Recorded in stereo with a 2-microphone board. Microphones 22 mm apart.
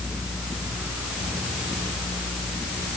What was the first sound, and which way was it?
Only background noise.